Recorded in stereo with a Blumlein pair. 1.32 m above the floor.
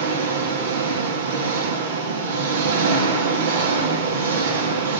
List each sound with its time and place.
0.0 s an engine running: 60° right, 1.9 m